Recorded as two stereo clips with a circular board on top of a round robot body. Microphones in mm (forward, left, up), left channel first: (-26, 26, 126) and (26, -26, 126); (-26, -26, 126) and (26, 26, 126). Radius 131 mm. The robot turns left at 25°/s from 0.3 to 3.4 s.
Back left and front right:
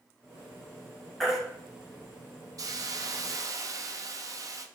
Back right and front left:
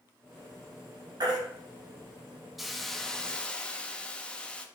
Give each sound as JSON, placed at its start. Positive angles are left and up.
{"t": 1.2, "sound": "a baby crying", "azimuth_deg": 45, "distance_m": 1.1}
{"t": 2.6, "sound": "a hiss", "azimuth_deg": -40, "distance_m": 0.6}